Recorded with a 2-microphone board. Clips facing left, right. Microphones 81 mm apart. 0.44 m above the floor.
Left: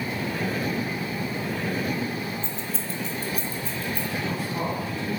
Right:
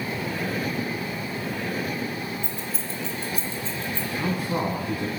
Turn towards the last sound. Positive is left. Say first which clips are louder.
# right 6 dB
turn(degrees=-55)  # may be behind; listen again after turning